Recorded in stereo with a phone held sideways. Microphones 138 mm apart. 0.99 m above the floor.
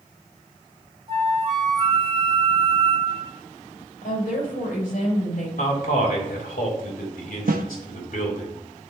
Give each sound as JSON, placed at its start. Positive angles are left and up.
{"t": 1.1, "sound": "a flute", "side_deg": -35, "distance_m": 1.6}
{"t": 4.0, "sound": "a woman speaking", "side_deg": 65, "distance_m": 3.5}
{"t": 5.6, "sound": "a man speaking", "side_deg": 65, "distance_m": 2.5}
{"t": 7.5, "sound": "a snare drum", "side_deg": -85, "distance_m": 0.7}